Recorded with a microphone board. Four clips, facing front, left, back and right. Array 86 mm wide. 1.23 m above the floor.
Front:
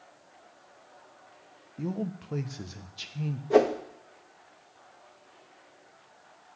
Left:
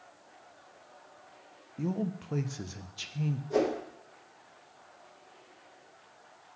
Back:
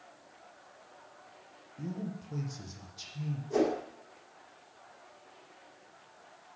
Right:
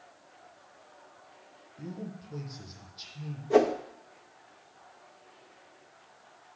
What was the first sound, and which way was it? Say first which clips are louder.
A man speaking: left 8 dB, front 6 dB; 50° left.